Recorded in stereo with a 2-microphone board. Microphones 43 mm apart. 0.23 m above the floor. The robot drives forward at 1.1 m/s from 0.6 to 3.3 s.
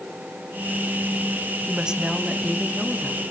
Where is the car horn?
I don't hear a car horn.